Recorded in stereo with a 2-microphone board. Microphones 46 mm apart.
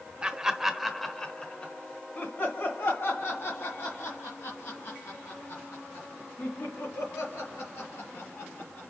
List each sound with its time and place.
0.2 s laughter: 20° right (ahead or behind), 1.0 m; by 8.9 s 70° left (ahead or behind), 4 m